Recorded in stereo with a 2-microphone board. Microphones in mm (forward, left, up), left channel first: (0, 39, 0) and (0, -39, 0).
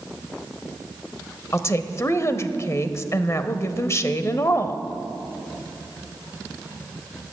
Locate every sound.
1.5 s a woman speaking: 35° left (ahead or behind), 1.0 m